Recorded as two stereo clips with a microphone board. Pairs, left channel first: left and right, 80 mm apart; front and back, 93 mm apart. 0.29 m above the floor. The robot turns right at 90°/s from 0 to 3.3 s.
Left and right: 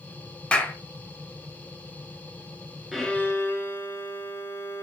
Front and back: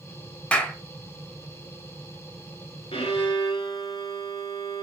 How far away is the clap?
About 0.8 m.